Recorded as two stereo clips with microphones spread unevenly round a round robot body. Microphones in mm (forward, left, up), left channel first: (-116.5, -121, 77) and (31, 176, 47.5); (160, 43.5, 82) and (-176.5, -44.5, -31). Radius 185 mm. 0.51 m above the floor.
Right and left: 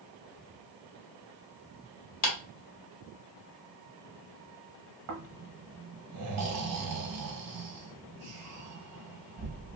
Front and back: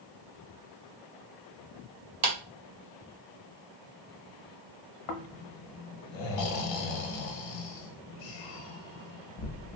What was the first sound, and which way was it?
A clap, 165° right.